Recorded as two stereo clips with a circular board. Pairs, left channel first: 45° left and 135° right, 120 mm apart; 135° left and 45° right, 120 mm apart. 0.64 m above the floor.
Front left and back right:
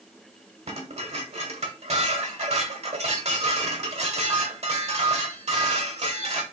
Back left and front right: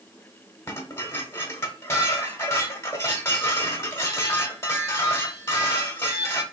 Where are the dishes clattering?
155° right, 1.2 m.